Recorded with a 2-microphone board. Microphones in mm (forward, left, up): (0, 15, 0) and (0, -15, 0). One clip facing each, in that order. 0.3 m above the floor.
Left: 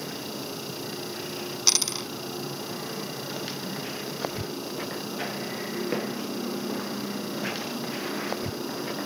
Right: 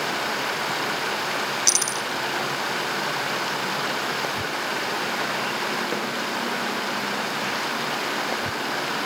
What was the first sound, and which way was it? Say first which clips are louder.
Running water: right 10 dB; 70° right (ahead or behind).